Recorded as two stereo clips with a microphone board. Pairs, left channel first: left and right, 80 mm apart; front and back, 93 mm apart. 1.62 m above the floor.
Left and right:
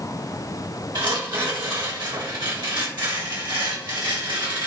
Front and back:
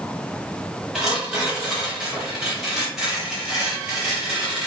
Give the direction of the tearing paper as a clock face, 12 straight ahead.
3 o'clock.